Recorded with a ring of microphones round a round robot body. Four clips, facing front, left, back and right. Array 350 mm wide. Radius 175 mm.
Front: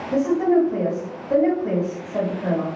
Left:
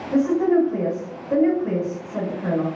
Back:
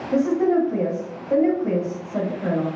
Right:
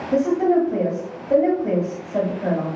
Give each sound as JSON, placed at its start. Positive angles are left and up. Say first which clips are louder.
{"t": 0.1, "sound": "a woman speaking", "louder": "even, front 1 dB", "azimuth_deg": -100, "distance_m": 1.3}